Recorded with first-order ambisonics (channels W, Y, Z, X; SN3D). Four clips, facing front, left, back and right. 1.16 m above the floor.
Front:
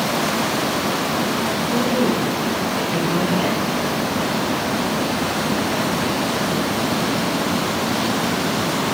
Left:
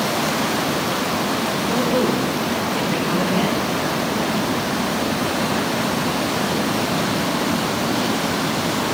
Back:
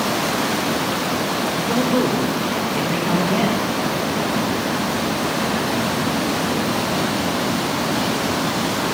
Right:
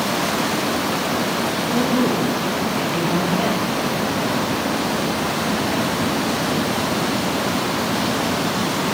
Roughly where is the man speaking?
Behind.